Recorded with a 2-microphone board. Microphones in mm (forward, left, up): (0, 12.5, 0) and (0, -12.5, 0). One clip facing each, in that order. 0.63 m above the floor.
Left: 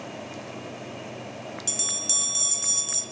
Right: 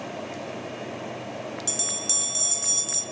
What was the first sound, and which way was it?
A bell, 5° right (ahead or behind).